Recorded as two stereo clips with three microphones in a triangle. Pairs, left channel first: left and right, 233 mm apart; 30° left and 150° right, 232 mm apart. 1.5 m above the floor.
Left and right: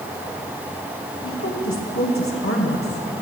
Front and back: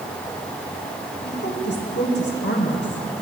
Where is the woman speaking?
70° left, 2.5 m.